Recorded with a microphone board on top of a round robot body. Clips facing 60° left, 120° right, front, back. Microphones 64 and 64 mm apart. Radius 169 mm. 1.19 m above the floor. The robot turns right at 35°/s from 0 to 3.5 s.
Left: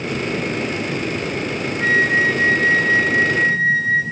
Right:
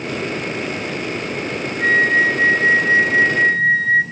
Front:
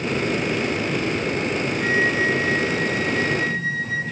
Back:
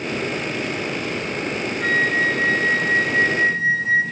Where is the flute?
85° right, 1.6 m; by 4.0 s 25° right, 1.6 m.